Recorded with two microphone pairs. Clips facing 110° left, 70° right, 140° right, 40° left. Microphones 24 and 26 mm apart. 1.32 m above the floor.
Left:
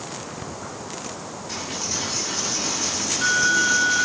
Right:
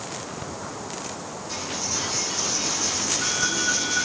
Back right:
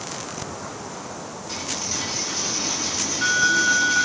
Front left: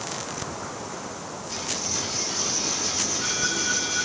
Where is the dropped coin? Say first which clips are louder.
Left 1 dB, back right 1 dB; 175° left, 9.5 m.